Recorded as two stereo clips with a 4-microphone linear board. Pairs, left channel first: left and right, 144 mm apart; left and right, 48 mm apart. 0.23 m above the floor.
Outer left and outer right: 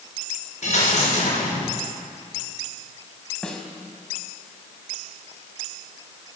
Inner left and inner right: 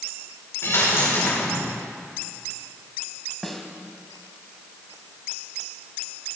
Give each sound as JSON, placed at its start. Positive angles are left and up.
{"t": 0.6, "sound": "a dropped coin", "side_deg": 50, "distance_m": 6.0}
{"t": 3.4, "sound": "a snare drum", "side_deg": 5, "distance_m": 1.9}